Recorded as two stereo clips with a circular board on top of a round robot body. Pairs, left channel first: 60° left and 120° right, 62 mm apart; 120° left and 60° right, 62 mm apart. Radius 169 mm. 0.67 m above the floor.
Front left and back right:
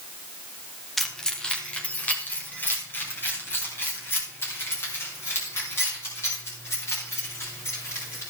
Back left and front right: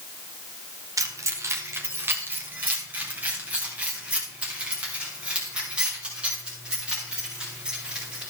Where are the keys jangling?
30° right, 1.4 m; by 8.2 s 15° left, 8 m.